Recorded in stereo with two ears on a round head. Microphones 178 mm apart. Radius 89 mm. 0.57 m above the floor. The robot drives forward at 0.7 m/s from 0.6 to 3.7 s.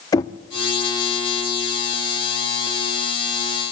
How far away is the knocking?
About 0.6 m.